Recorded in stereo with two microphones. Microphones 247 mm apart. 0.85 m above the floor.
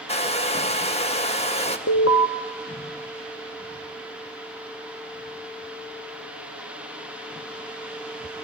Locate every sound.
0.1 s a hair dryer: 25° left (ahead or behind), 1.2 m
1.9 s an alarm: 65° left (ahead or behind), 1.2 m